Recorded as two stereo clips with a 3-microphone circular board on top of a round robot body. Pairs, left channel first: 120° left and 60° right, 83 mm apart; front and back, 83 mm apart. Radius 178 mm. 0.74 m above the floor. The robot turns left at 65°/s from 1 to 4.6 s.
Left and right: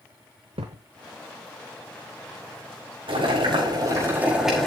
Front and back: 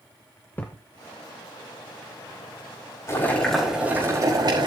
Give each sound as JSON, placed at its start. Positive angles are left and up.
{"t": 0.6, "sound": "a thud", "azimuth_deg": -70, "distance_m": 0.7}
{"t": 3.1, "sound": "boiling", "azimuth_deg": -55, "distance_m": 5.0}